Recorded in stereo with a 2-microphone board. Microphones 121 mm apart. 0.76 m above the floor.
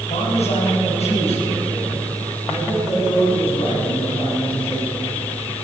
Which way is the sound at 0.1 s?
75° left (ahead or behind).